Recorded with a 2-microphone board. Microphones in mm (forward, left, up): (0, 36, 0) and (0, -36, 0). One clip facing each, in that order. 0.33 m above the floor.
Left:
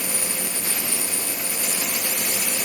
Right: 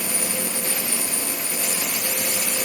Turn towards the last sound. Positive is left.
No sound to turn to.